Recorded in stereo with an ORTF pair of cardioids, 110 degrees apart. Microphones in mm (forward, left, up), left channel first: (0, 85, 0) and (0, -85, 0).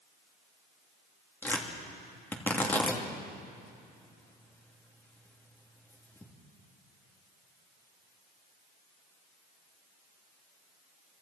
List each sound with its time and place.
1.4 s tearing paper: 10° left, 3 m